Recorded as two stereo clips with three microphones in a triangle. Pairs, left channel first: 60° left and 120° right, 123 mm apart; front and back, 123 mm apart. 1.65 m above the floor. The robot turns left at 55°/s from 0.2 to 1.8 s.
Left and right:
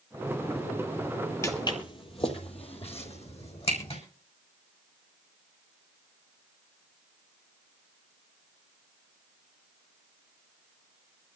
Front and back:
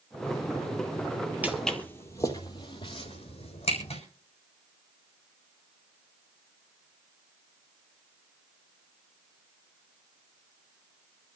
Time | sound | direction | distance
1.4 | footsteps | 115° left | 2 m